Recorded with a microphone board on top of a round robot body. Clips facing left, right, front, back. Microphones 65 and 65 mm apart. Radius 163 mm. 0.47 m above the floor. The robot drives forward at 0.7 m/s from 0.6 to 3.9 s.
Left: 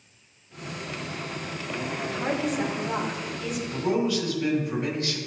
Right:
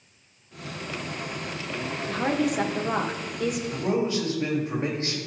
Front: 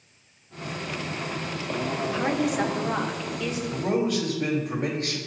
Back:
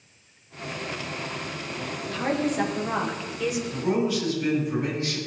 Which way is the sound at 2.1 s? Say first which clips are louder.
Right 3 dB, back 1 dB; 65° right.